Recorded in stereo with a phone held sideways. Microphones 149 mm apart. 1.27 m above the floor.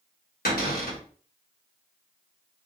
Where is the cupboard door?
85° left, 1.1 m.